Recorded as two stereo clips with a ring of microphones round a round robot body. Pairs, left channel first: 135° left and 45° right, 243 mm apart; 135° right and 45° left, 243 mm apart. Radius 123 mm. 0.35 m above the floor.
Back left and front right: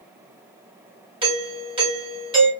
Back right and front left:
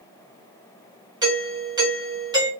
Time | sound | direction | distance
1.2 | a doorbell | 5° right | 1.3 m